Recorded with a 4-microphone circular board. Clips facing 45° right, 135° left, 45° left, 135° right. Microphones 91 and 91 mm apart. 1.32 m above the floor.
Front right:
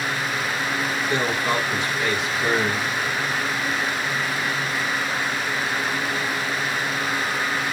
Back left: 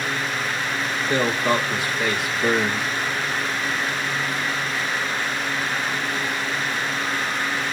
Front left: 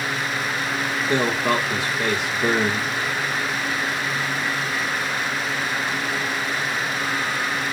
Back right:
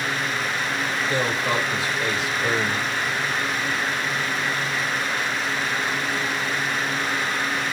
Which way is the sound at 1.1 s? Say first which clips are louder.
Back left 4 dB, front left 4 dB; 55° left.